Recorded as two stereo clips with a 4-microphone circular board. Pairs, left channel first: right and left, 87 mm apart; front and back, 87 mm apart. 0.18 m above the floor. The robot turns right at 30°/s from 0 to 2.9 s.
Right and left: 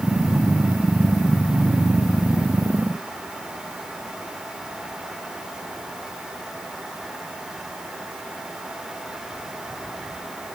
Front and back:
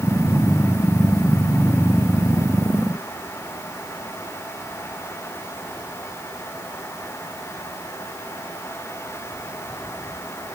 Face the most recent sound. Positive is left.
No sound to turn to.